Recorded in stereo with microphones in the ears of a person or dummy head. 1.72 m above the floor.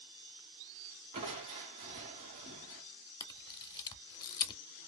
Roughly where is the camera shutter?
Left.